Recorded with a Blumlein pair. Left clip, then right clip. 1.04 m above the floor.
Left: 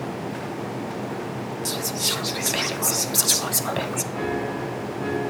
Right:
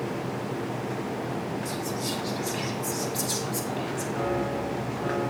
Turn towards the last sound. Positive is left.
turn(degrees=65)